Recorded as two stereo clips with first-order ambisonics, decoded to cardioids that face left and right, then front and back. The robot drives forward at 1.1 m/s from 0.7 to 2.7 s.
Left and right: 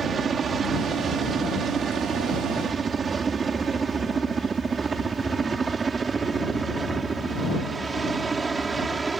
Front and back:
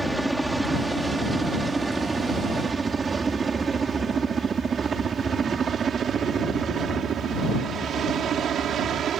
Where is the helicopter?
100° right; by 9.2 s 155° right.